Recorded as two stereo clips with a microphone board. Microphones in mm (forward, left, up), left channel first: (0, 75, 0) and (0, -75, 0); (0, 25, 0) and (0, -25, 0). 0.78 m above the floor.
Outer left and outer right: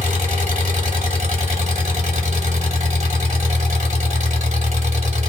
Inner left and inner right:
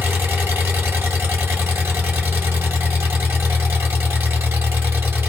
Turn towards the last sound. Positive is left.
turn(degrees=-50)  # may be behind; listen again after turning